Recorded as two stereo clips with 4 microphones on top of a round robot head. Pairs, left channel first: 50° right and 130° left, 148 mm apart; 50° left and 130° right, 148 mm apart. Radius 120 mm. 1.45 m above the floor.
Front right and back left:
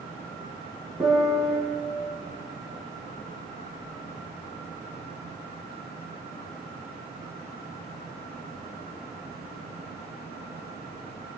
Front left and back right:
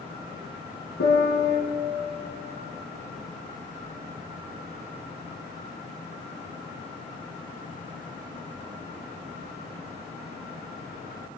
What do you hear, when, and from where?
1.0 s a piano: 45° left, 4 m